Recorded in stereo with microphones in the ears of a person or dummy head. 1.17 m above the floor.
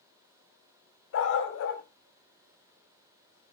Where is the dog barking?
75° left (ahead or behind), 2.5 m.